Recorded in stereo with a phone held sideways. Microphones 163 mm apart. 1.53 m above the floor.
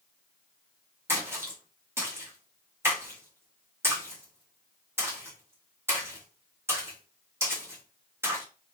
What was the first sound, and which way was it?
A splash, 15° right (ahead or behind).